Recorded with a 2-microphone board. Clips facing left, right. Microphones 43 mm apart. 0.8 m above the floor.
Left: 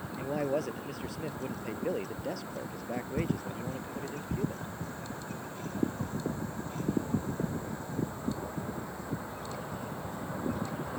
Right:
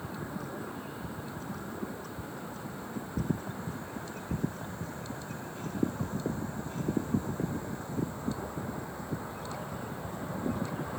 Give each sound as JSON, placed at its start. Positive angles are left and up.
{"t": 0.2, "sound": "a man speaking", "side_deg": 80}